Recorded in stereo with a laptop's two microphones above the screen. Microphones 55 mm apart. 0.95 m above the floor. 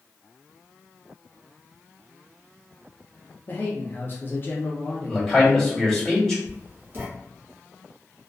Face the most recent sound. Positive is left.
turn(degrees=-35)  # may be behind; listen again after turning